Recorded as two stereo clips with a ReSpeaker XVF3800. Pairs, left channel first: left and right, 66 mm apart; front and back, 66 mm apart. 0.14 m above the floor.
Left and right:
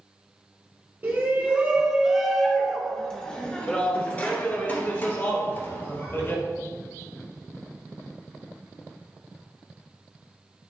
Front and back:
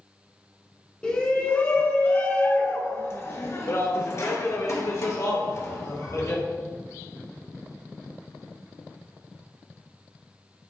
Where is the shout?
60° right, 1.3 m; by 6.4 s 45° left, 2.5 m.